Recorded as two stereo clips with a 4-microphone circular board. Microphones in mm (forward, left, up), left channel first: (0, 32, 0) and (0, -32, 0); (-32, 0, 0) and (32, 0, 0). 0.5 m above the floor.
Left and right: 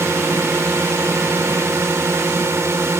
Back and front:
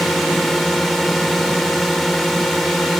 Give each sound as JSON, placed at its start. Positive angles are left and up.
{"t": 0.0, "sound": "a drone", "azimuth_deg": -90}